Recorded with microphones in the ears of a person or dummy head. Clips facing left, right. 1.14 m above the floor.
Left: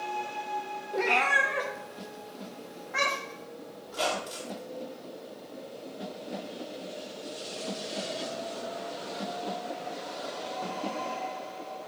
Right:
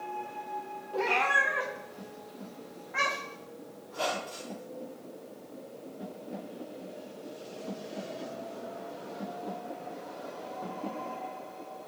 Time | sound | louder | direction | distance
0.9 | a cat meowing | left 2 dB | 20° left (ahead or behind) | 0.8 m
3.9 | a squeak | left 2 dB | 50° left (ahead or behind) | 1.6 m